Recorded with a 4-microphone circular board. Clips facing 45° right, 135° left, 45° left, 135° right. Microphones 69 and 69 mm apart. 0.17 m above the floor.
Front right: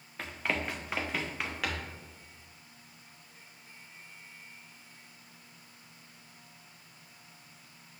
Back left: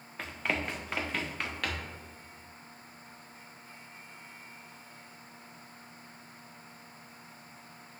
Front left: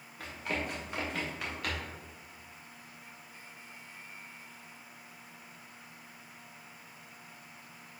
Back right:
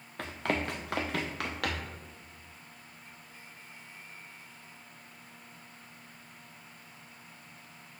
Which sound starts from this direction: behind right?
Running footsteps, at 0.2 s.